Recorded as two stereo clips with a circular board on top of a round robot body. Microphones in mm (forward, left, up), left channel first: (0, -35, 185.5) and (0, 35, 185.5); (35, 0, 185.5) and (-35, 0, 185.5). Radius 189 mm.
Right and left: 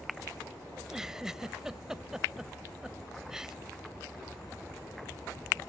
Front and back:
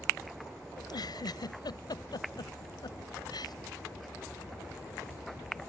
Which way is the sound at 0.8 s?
10° left.